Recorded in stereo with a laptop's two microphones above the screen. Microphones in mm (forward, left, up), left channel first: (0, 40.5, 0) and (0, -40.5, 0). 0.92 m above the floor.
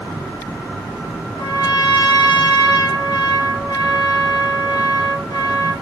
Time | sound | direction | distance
1.4 | a trumpet | 65° left (ahead or behind) | 3 m